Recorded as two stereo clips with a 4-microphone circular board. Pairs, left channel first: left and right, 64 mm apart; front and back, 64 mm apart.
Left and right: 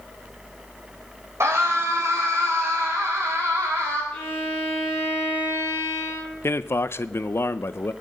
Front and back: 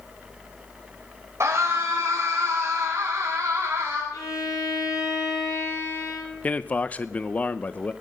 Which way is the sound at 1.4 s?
135° right.